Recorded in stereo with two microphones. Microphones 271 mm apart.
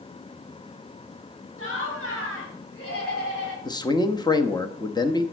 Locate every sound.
1.6 s laughter: 55° left (ahead or behind), 5.5 m; by 3.5 s 60° left (ahead or behind), 4 m
3.6 s a man speaking: 15° left (ahead or behind), 0.8 m